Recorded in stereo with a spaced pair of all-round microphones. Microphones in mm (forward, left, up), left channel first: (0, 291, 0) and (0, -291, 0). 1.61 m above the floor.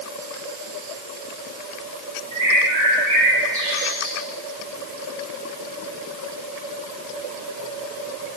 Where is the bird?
50° left (ahead or behind), 4.5 m.